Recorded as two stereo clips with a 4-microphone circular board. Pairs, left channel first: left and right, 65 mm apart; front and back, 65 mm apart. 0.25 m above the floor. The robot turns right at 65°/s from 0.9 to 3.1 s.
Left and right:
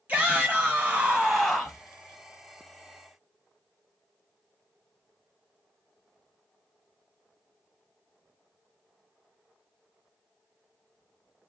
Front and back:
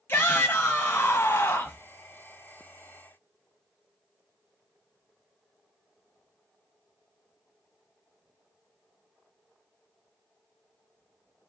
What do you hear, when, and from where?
0.1 s a shout: 40° right, 1.2 m; by 1.8 s 20° left, 1.2 m